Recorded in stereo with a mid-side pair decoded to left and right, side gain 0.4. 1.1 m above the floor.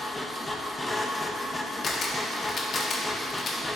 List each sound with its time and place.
0.0 s a machine running: 20° left, 1.0 m
1.8 s a camera shutter: 55° left, 1.2 m